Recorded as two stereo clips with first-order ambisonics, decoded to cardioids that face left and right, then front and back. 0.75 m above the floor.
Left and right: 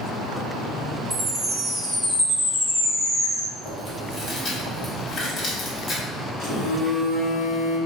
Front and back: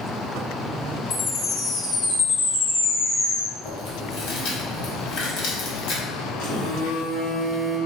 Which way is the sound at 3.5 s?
25° left.